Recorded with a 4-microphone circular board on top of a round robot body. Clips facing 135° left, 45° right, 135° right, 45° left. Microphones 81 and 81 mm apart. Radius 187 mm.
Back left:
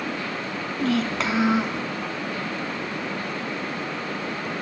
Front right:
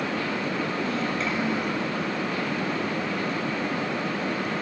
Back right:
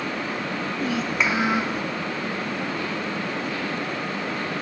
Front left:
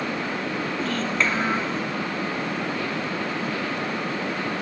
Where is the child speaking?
145° left, 4.5 m.